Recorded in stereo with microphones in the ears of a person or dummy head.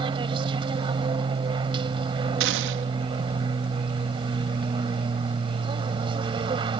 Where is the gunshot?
65° right (ahead or behind).